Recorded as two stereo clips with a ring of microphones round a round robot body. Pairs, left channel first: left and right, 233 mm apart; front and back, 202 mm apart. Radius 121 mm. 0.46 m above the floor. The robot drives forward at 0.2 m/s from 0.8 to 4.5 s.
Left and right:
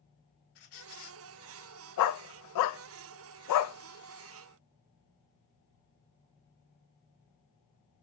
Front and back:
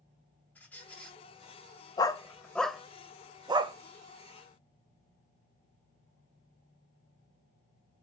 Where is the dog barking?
70° left, 0.5 m; by 3.8 s 115° left, 0.5 m.